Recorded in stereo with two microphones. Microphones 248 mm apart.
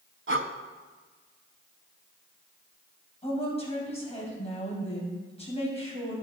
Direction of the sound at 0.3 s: 55° right (ahead or behind).